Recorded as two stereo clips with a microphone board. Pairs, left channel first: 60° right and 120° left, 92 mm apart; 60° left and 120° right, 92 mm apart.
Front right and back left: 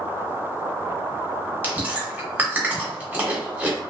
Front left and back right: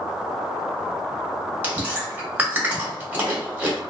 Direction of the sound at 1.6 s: Straight behind.